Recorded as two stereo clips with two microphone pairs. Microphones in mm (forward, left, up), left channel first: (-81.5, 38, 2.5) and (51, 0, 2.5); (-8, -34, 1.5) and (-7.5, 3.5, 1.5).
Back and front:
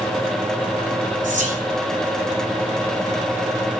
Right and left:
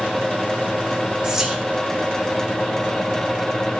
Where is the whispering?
10° left, 3 m.